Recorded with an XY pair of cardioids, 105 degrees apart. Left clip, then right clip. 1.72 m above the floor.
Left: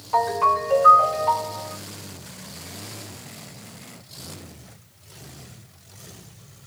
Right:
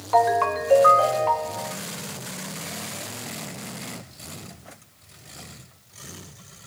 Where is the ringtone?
45° right, 2.5 m.